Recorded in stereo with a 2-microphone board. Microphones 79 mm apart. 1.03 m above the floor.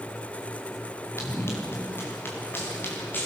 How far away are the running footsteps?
About 6.5 m.